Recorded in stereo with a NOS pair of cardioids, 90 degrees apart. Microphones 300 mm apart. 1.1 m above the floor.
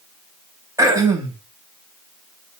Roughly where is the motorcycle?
No motorcycle in this recording.